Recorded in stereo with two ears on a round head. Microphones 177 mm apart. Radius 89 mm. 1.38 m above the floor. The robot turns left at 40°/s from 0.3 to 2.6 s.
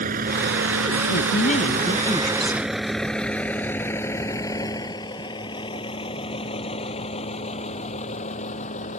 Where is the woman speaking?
55° left; by 2.7 s 5° right.